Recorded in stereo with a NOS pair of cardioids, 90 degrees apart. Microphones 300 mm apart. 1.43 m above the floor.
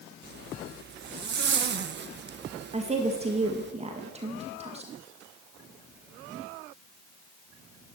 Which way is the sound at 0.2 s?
35° right.